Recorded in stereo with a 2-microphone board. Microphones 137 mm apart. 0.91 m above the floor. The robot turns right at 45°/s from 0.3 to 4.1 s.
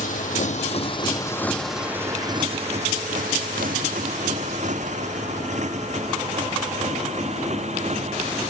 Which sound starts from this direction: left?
A motorcycle, at 0.0 s.